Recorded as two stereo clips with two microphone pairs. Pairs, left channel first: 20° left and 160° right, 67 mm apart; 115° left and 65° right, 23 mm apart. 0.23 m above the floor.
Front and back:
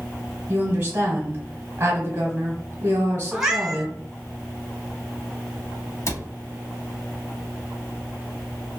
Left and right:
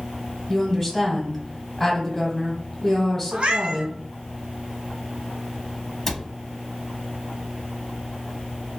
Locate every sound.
0.5 s a woman speaking: 170° right, 1.1 m
3.3 s a cat meowing: 80° right, 0.6 m
6.1 s a cupboard door: 45° left, 0.6 m